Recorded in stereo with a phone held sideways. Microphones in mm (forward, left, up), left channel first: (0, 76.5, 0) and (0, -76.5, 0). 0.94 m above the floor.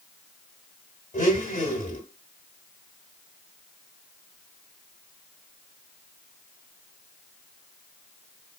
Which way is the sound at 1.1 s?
55° left (ahead or behind).